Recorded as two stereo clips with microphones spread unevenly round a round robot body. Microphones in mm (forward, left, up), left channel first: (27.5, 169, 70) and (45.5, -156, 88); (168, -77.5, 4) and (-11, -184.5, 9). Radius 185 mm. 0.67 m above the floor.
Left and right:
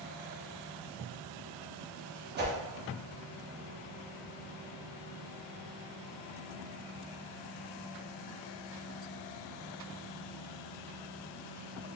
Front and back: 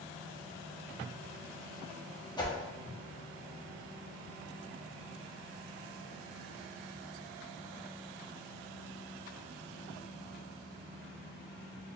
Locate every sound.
2.4 s a whoosh: 35° right, 1.3 m